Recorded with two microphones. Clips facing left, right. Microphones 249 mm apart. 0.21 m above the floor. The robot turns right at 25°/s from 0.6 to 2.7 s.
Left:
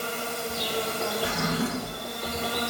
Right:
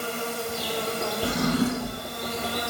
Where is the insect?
10° right, 1.6 m; by 2.7 s 40° left, 1.6 m.